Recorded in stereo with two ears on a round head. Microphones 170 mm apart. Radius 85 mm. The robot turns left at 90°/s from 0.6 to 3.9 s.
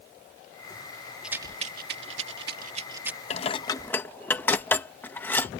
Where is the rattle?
5° right (ahead or behind); by 3.2 s centre (ahead or behind).